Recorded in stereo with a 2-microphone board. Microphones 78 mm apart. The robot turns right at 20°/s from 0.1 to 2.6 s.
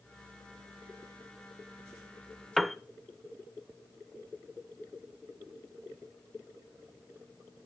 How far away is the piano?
About 0.5 m.